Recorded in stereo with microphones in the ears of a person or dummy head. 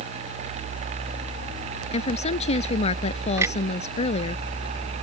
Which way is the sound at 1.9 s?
40° left (ahead or behind).